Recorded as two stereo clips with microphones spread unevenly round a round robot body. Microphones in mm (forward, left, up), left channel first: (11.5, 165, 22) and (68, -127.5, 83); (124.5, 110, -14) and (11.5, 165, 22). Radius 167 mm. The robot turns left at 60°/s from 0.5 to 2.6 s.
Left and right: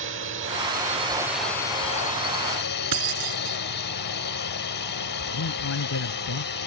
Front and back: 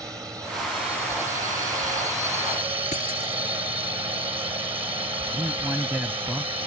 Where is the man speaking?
75° left.